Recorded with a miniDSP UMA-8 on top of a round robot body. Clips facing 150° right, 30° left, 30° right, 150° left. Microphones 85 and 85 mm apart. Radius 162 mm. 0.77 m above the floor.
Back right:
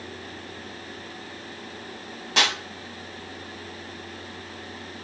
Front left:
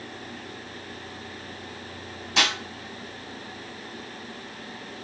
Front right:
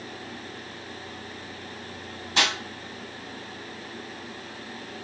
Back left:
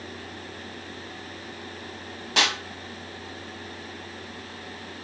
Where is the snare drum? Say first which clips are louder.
Back right 1 dB, back left 1 dB; 175° left, 0.6 m.